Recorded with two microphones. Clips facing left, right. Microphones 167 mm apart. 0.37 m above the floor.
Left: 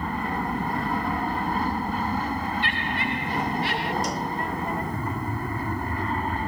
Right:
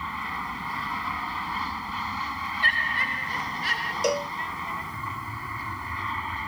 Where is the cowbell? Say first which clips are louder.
Right 3 dB; 70° right (ahead or behind).